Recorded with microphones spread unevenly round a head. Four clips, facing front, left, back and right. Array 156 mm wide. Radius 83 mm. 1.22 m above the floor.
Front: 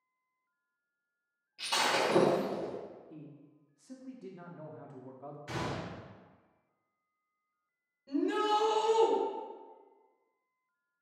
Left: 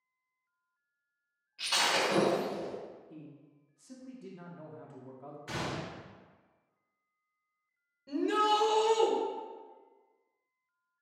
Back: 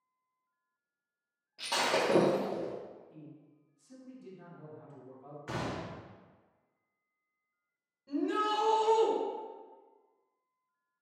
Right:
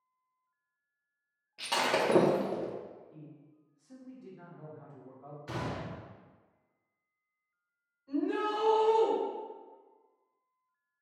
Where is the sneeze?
I don't hear a sneeze.